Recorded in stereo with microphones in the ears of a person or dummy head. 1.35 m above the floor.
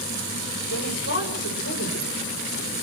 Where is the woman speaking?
60° left (ahead or behind), 4.5 m.